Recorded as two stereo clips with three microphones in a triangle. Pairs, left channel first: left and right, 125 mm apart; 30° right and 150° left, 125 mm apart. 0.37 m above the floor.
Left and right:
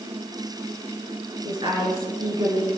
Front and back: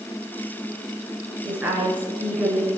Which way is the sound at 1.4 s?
135° right.